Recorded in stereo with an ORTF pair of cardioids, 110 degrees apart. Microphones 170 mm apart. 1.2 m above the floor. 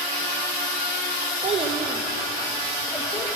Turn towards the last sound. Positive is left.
turn(degrees=20)